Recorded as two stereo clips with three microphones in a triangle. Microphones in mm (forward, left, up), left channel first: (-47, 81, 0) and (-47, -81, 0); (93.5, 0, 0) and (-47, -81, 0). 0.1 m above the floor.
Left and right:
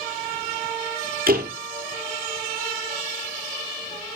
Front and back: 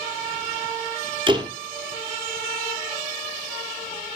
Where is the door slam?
95° right, 2.5 m.